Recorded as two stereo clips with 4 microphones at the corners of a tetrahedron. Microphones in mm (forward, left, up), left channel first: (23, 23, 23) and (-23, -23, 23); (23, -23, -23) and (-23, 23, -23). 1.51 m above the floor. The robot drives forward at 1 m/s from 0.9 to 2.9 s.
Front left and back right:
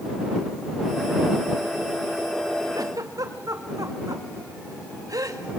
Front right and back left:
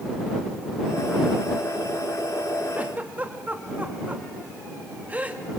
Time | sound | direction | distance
2.7 | a giggle | 155° right | 1.9 m